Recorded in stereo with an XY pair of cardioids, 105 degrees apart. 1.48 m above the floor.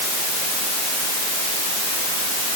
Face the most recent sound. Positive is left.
No sound to turn to.